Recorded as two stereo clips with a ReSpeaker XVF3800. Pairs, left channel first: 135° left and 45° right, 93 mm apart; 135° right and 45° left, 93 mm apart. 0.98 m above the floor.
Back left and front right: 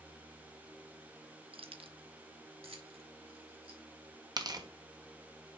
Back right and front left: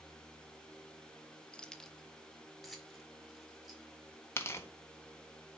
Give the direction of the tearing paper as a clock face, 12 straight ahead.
3 o'clock.